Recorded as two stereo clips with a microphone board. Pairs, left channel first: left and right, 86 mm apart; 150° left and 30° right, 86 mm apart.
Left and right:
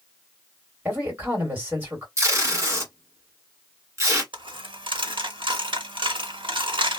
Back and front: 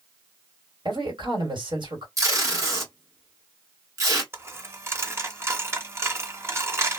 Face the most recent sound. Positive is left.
turn(degrees=-90)